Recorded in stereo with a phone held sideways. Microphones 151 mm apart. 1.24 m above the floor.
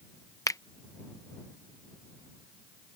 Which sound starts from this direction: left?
A finger snap, at 0.5 s.